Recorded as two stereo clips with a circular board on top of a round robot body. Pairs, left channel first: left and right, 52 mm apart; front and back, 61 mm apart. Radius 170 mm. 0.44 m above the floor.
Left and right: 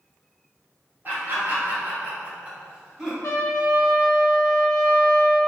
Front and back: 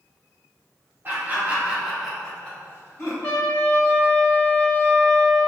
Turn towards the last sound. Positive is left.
turn(degrees=60)